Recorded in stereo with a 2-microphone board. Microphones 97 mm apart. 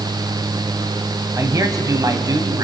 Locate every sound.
1.4 s a man speaking: 35° right (ahead or behind), 1.4 m; by 2.6 s 40° right (ahead or behind), 1.7 m